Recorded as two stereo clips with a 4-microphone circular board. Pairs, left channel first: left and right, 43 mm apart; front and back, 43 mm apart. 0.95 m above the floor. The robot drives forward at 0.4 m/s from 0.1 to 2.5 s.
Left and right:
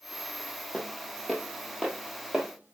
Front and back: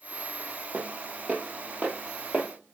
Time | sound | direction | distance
0.7 | footsteps | 150° left | 1.2 m